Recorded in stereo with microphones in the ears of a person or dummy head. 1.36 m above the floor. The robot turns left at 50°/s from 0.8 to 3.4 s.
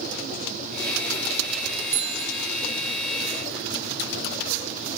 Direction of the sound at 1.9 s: 15° right (ahead or behind).